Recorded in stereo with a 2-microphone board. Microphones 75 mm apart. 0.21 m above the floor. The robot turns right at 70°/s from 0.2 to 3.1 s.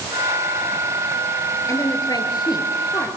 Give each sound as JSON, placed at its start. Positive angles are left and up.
{"t": 1.7, "sound": "a woman speaking", "side_deg": 45, "distance_m": 4.0}